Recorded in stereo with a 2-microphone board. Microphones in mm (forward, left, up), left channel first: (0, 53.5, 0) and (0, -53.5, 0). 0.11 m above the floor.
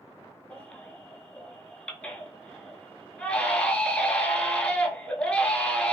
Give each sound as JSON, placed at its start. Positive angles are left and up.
{"t": 0.5, "sound": "a baby crying", "side_deg": 10, "distance_m": 0.5}